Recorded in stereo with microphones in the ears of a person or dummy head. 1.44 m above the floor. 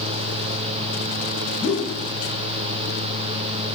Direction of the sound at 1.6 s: 80° left.